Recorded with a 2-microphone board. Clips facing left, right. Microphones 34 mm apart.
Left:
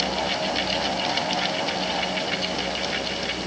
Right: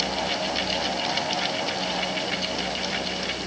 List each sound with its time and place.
Only background noise.